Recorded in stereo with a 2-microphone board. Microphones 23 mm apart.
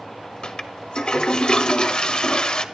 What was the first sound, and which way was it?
A toilet flushing, 45° left (ahead or behind).